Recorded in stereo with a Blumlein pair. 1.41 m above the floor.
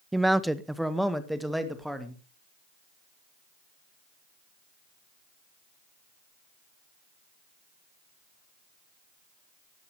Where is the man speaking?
5° right, 0.7 m; by 2.2 s straight ahead, 3 m.